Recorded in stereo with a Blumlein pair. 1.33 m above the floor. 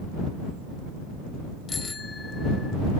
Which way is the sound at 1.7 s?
15° left.